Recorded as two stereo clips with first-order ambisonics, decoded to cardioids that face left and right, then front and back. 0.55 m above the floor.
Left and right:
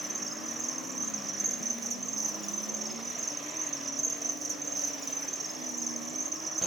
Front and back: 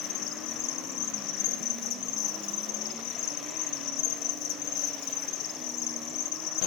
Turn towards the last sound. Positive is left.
turn(degrees=-15)